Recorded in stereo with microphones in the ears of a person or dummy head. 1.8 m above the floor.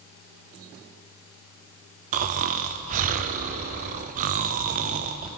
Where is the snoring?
35° right (ahead or behind), 0.6 m.